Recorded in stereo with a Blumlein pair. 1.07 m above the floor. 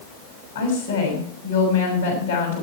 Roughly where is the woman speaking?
Ahead left.